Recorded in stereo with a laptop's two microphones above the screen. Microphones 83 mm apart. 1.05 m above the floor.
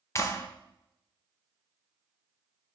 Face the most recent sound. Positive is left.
turn(degrees=35)  # may be behind; listen again after turning